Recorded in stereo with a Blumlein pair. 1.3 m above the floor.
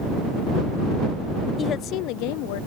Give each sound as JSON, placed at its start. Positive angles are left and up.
{"t": 1.6, "sound": "a woman speaking", "azimuth_deg": 20}